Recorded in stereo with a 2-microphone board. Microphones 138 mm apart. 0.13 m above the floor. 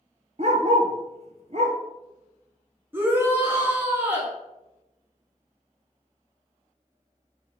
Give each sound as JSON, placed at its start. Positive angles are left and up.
{"t": 0.4, "sound": "a dog barking", "side_deg": -50, "distance_m": 0.7}
{"t": 2.9, "sound": "a shout", "side_deg": -15, "distance_m": 1.8}